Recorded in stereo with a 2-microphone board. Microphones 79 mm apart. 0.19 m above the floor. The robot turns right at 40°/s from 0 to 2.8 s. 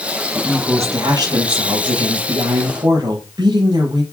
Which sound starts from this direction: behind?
A woman speaking, at 0.3 s.